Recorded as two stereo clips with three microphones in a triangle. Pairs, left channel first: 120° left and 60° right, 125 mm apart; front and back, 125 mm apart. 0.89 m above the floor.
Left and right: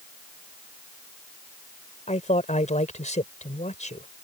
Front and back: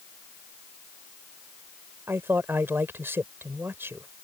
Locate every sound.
2.1 s a man speaking: 110° left